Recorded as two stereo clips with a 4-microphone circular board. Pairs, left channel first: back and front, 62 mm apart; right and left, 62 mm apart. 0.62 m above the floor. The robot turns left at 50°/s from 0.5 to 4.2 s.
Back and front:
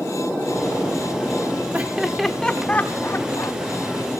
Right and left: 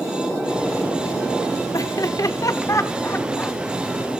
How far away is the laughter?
About 1.4 m.